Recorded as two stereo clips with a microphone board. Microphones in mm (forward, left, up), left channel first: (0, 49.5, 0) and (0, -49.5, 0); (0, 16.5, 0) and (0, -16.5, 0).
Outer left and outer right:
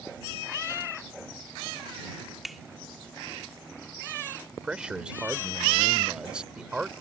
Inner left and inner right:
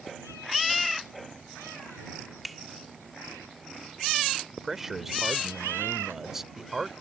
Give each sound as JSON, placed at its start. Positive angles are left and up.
{"t": 2.4, "sound": "a finger snap", "side_deg": 0}
{"t": 4.6, "sound": "a man speaking", "side_deg": -10}